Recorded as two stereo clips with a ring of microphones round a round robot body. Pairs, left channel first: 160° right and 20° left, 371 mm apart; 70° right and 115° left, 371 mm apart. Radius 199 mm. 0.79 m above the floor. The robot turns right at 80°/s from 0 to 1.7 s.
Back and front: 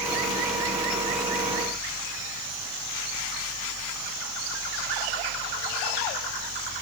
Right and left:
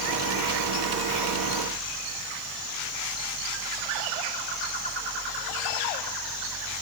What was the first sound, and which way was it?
Only background noise.